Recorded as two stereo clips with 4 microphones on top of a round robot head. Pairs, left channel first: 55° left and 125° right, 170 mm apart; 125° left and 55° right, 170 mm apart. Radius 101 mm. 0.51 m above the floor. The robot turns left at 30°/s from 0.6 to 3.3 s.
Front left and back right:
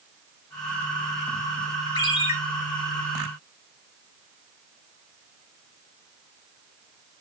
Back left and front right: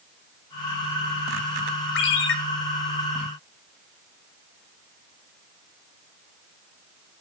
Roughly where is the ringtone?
Behind left.